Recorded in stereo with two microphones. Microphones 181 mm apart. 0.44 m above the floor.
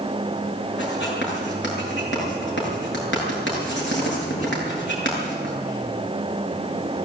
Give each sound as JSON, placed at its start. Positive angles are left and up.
{"t": 0.8, "sound": "writing", "side_deg": 80, "distance_m": 8.5}